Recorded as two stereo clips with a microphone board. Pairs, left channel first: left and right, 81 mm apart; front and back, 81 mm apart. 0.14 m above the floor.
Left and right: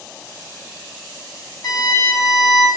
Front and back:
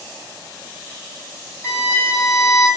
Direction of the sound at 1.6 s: 60° left.